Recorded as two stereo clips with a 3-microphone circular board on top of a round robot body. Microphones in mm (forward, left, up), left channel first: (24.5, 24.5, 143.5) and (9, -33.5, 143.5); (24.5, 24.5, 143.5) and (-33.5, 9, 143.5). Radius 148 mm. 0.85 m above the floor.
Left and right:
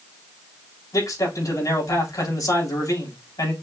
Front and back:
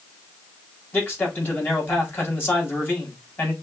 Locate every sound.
0.9 s a man speaking: 70° left, 3.5 m